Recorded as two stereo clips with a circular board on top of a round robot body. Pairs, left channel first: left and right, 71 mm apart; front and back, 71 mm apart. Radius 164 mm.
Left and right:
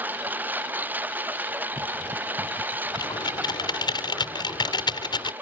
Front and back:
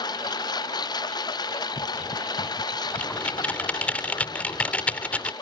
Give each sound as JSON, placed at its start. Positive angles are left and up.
{"t": 0.0, "sound": "a lawn mower", "azimuth_deg": -25}
{"t": 3.0, "sound": "typing on a keyboard", "azimuth_deg": 75}